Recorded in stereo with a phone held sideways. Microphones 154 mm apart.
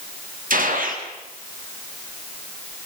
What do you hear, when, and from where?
0.5 s a gunshot: 65° right (ahead or behind), 3 m